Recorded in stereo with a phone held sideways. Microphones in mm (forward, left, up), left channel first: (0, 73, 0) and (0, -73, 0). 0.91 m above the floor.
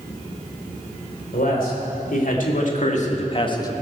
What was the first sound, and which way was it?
A man speaking, 80° left.